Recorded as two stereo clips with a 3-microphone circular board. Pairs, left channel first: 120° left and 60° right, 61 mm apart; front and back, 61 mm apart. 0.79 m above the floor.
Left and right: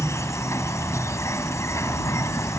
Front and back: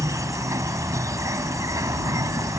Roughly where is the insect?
Behind left.